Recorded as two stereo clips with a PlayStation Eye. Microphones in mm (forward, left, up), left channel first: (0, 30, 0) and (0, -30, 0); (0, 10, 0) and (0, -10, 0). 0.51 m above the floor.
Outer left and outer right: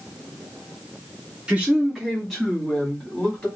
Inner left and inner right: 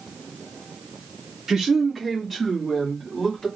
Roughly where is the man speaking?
Centre.